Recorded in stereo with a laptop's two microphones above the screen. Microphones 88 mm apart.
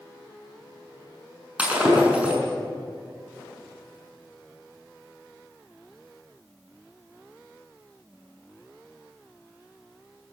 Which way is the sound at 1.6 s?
15° right (ahead or behind).